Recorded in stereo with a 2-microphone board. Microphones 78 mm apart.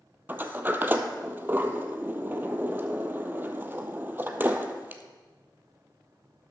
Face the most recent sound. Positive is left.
turn(degrees=-25)  # may be behind; listen again after turning